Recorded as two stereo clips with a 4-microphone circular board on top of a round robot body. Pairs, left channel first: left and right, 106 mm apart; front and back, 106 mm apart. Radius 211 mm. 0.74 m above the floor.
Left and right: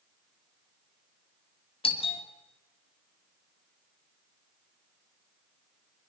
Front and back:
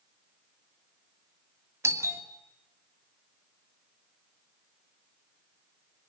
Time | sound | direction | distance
1.8 | a doorbell | 115° left | 3 m